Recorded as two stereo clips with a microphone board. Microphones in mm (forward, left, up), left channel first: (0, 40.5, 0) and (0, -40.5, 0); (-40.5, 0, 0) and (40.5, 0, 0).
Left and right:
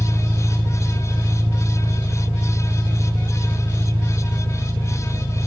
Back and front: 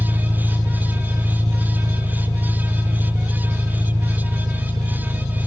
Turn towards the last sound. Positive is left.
turn(degrees=-35)